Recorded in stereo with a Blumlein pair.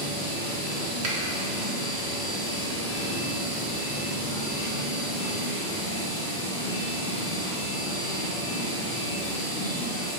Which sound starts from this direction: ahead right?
A finger snap, at 1.0 s.